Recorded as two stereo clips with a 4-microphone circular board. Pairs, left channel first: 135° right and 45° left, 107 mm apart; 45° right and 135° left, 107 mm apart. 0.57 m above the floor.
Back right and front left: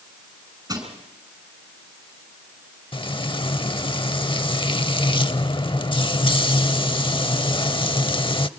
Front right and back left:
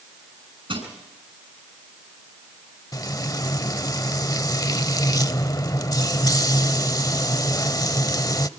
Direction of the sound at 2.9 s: 100° right.